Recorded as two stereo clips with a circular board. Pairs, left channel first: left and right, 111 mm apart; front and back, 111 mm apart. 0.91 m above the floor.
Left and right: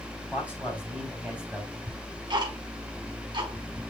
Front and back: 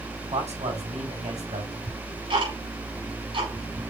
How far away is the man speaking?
About 5 m.